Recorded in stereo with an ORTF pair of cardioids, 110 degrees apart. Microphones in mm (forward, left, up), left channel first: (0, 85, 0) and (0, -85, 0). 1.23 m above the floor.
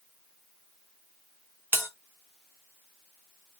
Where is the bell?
10° right, 0.7 m.